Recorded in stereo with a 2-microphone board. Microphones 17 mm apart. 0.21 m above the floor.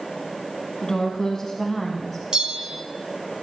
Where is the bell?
50° right (ahead or behind), 1.0 m.